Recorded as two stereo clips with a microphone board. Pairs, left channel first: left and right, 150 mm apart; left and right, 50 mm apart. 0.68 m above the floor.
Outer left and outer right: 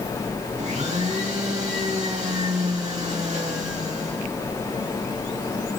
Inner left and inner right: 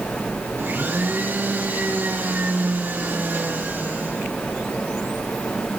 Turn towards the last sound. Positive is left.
turn(degrees=-50)  # may be behind; listen again after turning